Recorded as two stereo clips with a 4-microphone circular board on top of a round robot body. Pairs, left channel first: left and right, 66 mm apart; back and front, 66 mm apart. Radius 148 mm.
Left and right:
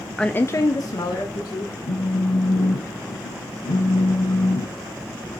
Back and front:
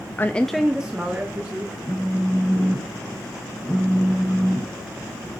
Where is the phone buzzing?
100° left, 1.2 m.